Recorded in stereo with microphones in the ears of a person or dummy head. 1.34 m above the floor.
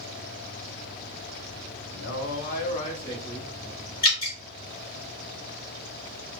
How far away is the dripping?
About 1.8 m.